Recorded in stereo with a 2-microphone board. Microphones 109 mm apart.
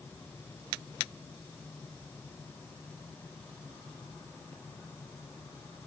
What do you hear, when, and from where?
Only background noise.